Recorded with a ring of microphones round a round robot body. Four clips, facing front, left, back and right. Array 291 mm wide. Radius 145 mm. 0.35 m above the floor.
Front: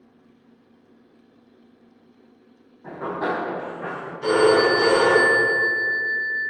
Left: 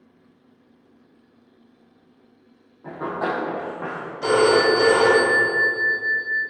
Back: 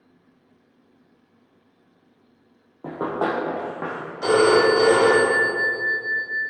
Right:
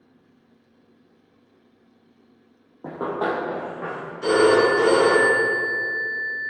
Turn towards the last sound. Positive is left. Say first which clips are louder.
# even, back 1 dB
turn(degrees=145)